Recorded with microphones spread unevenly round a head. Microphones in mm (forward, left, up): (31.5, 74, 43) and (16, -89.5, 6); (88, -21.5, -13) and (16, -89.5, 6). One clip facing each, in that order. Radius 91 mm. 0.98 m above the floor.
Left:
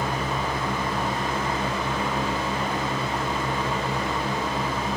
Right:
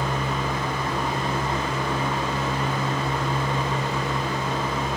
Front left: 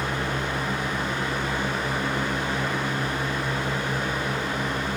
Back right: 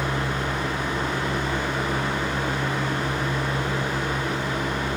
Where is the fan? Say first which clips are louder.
Even, back right 1 dB; 170° left, 1.5 m.